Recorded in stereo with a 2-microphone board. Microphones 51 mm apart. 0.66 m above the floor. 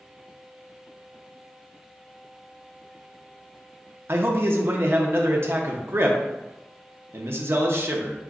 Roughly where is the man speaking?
Right.